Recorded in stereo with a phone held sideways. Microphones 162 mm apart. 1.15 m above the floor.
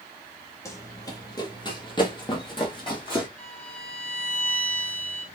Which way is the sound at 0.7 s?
15° left (ahead or behind).